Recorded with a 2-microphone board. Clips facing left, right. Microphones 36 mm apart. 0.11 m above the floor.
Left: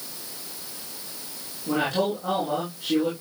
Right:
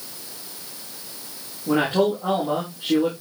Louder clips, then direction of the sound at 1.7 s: Right 4 dB; 25° right (ahead or behind).